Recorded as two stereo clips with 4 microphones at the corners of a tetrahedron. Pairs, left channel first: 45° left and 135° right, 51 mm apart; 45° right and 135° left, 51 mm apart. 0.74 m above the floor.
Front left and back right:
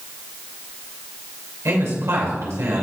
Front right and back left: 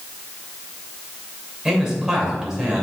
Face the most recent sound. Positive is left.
turn(degrees=-145)